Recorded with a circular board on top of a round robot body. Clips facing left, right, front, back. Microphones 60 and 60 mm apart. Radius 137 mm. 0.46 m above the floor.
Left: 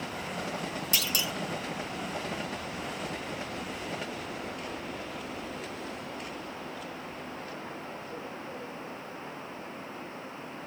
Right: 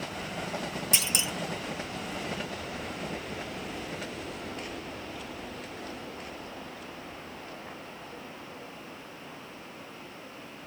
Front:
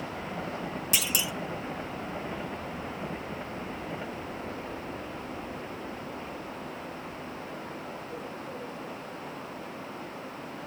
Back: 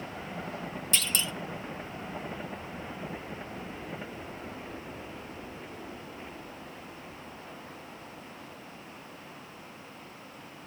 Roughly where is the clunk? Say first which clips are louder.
Left 1 dB, even; ahead right.